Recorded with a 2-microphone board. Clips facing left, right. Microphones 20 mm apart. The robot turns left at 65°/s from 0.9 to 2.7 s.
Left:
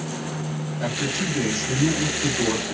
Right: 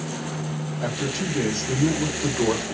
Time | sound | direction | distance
0.8 | a man speaking | 20° left | 3 m